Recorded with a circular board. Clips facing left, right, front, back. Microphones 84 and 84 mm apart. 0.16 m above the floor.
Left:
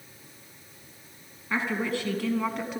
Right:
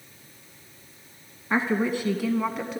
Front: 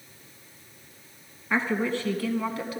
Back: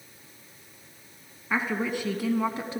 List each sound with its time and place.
1.5 s a woman speaking: 105° right, 1.4 m; by 2.8 s 175° left, 1.3 m